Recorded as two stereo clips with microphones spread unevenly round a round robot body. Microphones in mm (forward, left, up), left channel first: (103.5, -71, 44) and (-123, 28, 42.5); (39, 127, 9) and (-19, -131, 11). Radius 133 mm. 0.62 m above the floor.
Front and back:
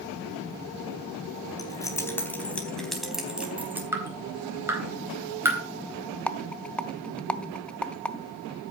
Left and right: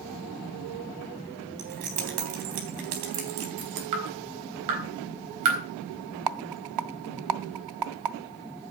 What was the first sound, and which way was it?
Keys jangling, 100° right.